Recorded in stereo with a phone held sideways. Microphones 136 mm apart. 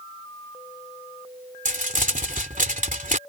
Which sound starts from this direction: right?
Crumpling, at 1.6 s.